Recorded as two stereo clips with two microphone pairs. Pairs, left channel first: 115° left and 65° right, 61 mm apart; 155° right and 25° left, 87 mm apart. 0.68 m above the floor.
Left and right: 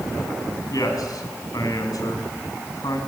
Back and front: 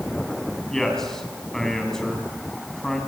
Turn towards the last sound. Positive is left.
turn(degrees=120)